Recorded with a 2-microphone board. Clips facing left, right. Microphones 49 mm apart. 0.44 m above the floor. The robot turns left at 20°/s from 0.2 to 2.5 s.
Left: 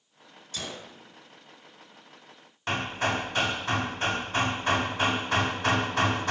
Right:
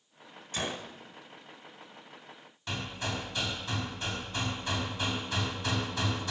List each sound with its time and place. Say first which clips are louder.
0.5 s a gunshot: right 3 dB; 35° right (ahead or behind), 1.6 m; by 0.9 s 30° right (ahead or behind), 1.6 m
2.7 s hammering: left 8 dB; 50° left (ahead or behind), 0.5 m